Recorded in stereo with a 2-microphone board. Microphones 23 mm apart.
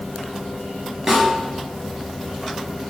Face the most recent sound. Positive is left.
turn(degrees=-20)  # may be behind; listen again after turning